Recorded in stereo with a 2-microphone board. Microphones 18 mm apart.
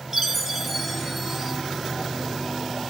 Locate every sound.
0.1 s a chime: 15° right (ahead or behind), 0.7 m